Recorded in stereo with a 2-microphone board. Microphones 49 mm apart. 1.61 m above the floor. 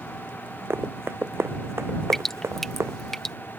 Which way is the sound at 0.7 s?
60° right (ahead or behind).